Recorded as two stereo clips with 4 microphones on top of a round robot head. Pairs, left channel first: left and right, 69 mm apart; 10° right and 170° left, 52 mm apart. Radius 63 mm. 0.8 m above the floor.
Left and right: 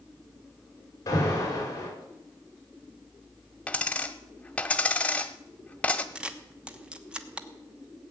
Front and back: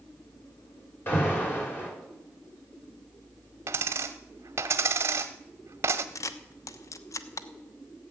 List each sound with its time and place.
1.1 s an alarm: 40° left, 5 m
3.7 s a dropped coin: 155° left, 0.7 m
6.2 s a camera shutter: 15° right, 1.0 m